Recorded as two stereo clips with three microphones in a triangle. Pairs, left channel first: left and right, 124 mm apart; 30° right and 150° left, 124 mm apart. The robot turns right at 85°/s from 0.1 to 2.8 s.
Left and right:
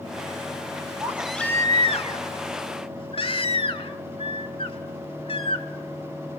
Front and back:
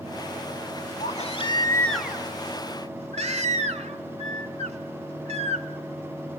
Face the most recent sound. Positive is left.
turn(degrees=130)